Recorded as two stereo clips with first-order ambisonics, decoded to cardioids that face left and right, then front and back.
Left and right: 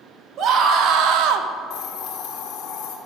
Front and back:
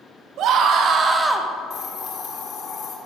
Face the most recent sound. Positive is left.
turn(degrees=50)